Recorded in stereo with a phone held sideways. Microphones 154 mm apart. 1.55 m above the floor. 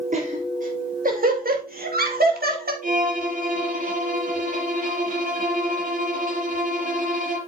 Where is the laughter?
55° right (ahead or behind), 3.5 m; by 2.7 s 85° right, 2.5 m.